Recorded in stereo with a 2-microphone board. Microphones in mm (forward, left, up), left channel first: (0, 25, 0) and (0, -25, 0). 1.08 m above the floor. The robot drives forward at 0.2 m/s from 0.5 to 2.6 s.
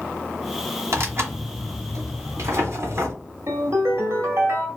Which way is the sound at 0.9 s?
60° right (ahead or behind).